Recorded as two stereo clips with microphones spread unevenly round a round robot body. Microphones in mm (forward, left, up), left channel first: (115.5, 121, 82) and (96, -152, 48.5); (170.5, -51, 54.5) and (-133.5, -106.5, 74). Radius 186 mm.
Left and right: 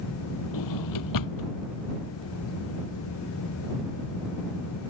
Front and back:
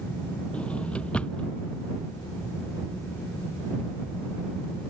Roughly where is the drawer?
Left.